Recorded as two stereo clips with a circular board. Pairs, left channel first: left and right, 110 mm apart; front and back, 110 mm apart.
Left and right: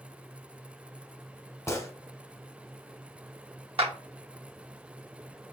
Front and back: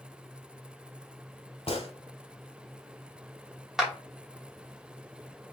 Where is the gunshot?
25° left, 0.8 m.